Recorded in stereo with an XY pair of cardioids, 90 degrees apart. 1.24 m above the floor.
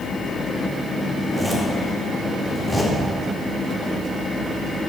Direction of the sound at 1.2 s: 5° left.